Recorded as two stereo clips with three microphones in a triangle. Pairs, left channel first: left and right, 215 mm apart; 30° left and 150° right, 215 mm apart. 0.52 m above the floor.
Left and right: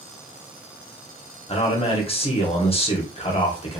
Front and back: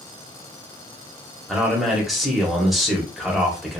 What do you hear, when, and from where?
1.5 s a man speaking: 120° left, 0.9 m